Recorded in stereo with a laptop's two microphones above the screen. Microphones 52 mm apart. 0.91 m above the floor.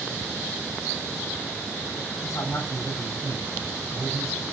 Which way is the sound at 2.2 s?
60° left (ahead or behind).